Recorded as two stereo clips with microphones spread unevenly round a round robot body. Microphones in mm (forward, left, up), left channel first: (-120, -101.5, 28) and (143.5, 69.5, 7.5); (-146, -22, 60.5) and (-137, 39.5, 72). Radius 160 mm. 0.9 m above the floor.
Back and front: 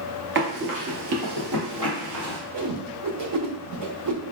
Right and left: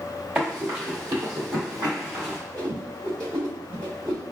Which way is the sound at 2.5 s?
40° left.